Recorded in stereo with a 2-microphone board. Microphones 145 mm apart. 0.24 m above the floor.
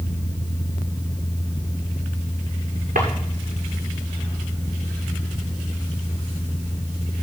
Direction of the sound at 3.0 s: 70° right (ahead or behind).